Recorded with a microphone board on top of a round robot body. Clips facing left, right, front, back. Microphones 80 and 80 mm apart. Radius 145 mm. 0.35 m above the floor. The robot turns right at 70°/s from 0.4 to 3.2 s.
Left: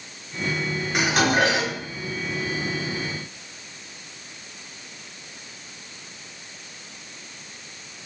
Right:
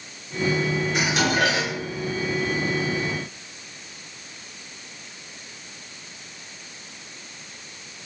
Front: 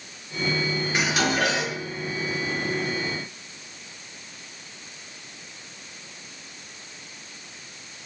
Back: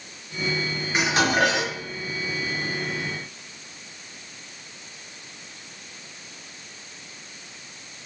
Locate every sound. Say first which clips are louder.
0.9 s dishes clattering: left 4 dB, back 4 dB; 110° left, 1.8 m; by 1.8 s 165° left, 1.8 m